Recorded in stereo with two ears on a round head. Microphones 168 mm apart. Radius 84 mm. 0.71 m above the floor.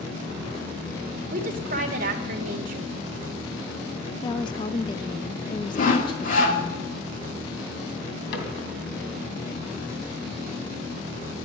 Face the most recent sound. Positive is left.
turn(degrees=65)  # may be behind; listen again after turning